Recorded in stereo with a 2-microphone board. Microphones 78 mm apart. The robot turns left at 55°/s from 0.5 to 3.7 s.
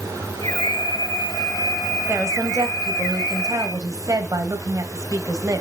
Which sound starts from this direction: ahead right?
A woman speaking, at 2.1 s.